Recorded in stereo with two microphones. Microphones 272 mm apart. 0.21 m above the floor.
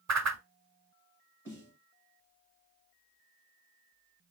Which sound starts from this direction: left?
A snare drum, at 1.4 s.